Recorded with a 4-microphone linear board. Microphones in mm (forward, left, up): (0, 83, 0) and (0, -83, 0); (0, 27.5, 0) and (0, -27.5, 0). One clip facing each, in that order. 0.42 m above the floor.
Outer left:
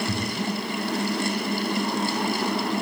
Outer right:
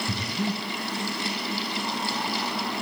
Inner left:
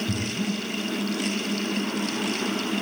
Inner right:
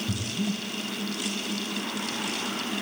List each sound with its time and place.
0.1 s breathing: 15° right (ahead or behind), 3 m